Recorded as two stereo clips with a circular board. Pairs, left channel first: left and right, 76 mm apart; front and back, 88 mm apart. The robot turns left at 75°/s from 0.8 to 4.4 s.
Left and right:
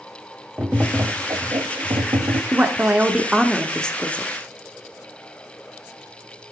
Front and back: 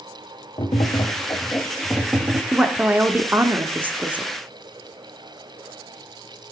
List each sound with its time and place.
0.6 s tapping: 15° right, 0.6 m; by 2.4 s 135° right, 0.6 m
2.5 s a woman speaking: 105° right, 0.7 m; by 4.3 s 120° left, 0.7 m